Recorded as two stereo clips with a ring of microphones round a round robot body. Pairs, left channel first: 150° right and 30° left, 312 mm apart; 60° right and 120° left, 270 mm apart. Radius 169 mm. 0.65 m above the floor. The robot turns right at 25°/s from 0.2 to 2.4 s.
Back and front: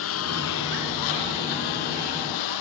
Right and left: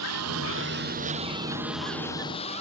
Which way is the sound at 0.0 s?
160° left.